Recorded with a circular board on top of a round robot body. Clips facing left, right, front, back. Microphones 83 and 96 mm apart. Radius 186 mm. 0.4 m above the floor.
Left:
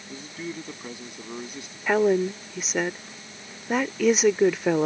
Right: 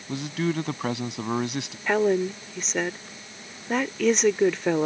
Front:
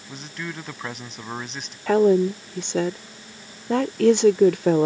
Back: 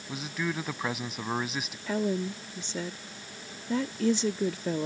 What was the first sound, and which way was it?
A man speaking, 95° right.